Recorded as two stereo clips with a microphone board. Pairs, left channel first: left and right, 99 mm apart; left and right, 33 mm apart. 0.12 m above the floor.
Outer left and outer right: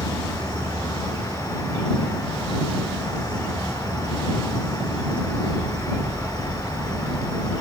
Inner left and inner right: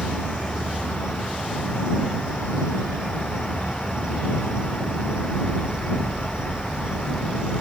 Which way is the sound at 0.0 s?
30° right (ahead or behind).